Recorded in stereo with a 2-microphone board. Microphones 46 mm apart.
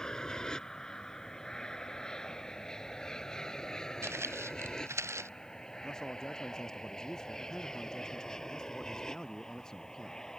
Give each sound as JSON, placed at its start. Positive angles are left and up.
{"t": 0.0, "sound": "an aircraft", "side_deg": 15}
{"t": 4.0, "sound": "footsteps", "side_deg": -70}
{"t": 5.8, "sound": "a man speaking", "side_deg": 15}